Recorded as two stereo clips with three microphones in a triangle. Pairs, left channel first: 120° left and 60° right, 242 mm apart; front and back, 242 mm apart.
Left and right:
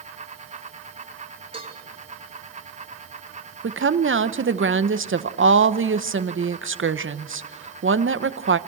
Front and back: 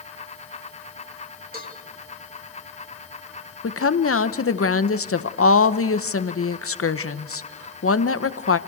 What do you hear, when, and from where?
1.5 s a cowbell: 125° right, 3 m
3.6 s a woman speaking: 25° right, 0.9 m